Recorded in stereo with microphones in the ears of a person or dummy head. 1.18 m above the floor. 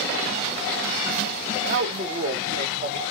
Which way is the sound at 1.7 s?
35° right (ahead or behind).